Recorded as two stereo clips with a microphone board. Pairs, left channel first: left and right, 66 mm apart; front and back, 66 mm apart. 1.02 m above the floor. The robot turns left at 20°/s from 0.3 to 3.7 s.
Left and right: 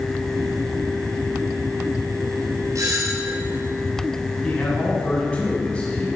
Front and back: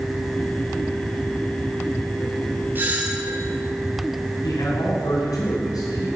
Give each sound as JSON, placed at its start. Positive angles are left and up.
{"t": 2.8, "sound": "a doorbell", "azimuth_deg": -120, "distance_m": 5.0}
{"t": 4.4, "sound": "a man speaking", "azimuth_deg": 15, "distance_m": 7.0}